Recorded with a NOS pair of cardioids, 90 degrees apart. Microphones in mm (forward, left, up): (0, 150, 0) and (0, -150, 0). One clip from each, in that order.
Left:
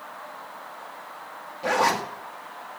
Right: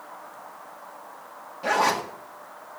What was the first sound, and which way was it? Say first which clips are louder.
A zipper: even; straight ahead.